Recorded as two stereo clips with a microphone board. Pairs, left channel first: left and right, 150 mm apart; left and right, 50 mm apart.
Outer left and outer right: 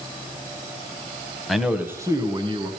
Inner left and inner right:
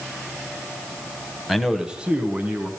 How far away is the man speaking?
About 1.0 m.